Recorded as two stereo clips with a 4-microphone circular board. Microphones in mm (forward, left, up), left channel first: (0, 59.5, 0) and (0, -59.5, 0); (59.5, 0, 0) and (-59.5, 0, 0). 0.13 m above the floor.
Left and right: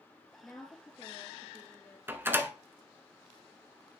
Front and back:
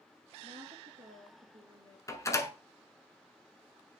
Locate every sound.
0.4 s a woman speaking: 165° left, 3 m
2.1 s a door slam: 35° right, 1.0 m